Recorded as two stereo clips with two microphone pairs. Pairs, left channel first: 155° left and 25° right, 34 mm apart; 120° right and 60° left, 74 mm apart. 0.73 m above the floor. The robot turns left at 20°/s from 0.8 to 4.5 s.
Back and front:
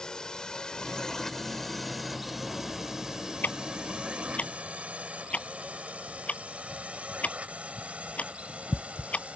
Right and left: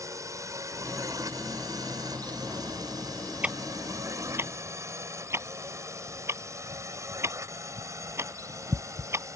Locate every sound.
0.0 s a drone: 90° left; by 9.4 s 25° left
3.4 s ticking: 130° left; by 9.4 s 110° left